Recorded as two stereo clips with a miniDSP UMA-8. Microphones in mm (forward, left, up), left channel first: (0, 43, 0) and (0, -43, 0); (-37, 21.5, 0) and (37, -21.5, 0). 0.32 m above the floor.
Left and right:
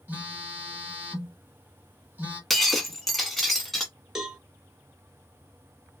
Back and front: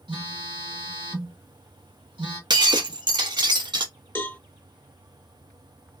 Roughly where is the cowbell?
Behind.